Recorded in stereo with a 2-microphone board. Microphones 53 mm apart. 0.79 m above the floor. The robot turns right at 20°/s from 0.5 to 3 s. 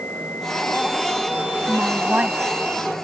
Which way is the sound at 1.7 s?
25° right (ahead or behind).